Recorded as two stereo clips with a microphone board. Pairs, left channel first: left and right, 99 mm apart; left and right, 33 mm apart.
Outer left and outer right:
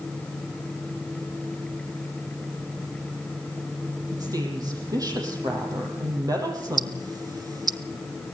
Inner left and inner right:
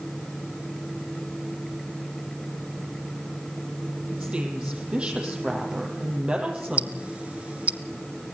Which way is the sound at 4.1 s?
35° right (ahead or behind).